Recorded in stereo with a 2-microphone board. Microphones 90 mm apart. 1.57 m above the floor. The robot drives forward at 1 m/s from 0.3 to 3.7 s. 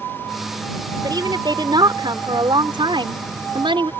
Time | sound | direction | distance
1.0 | a woman speaking | 50° right (ahead or behind) | ?